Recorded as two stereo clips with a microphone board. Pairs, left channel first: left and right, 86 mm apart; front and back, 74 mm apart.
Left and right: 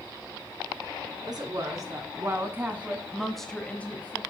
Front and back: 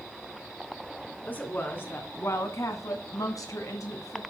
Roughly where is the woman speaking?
Ahead right.